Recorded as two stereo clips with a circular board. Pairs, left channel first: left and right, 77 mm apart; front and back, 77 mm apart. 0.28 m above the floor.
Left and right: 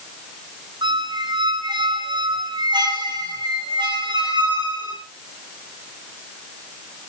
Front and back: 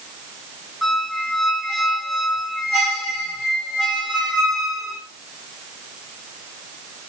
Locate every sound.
0.8 s a squeak: 95° right, 8.5 m